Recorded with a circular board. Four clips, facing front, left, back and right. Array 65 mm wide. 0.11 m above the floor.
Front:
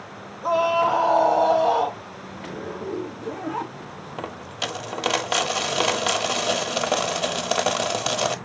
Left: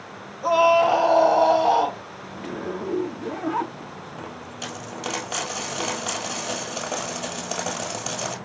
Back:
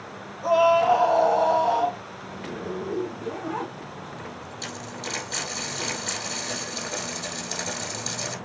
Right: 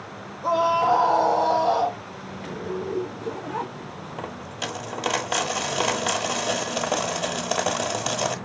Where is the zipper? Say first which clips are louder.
Even, back 1 dB; 90° left, 2.5 m.